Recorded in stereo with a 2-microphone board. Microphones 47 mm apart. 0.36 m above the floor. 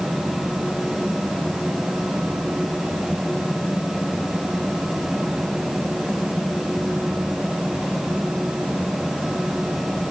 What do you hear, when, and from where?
Only background noise.